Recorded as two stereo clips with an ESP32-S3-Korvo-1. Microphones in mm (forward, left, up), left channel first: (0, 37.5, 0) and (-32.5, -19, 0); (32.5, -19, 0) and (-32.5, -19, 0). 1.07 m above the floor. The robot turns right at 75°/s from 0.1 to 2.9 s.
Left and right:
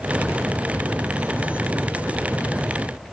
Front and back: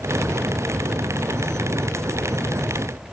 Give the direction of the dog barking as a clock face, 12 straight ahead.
I don't hear a dog barking.